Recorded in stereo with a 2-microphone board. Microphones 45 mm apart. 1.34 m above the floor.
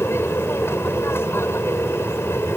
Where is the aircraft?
80° left.